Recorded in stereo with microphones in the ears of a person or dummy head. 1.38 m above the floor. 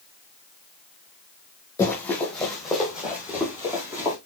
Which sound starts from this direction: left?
Running footsteps, at 1.8 s.